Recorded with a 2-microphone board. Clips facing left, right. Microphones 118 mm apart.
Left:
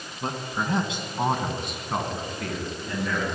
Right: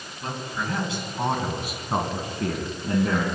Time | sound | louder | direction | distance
0.2 | a man speaking | left 2 dB | 40° left (ahead or behind) | 2 m